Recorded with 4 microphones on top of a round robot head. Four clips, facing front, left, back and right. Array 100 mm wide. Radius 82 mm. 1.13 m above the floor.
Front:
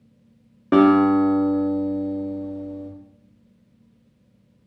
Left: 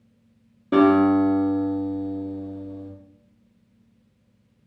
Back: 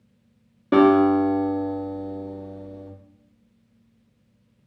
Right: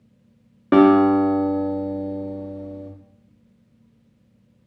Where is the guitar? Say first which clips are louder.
Right 3 dB, front 1 dB; 70° right, 0.6 m.